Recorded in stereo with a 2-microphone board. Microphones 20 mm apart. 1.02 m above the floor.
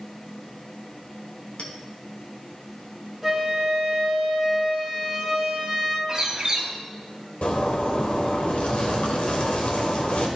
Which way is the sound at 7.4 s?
75° left (ahead or behind).